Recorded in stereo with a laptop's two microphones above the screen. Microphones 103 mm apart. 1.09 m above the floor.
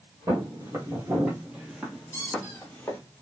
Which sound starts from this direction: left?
A squeak, at 2.1 s.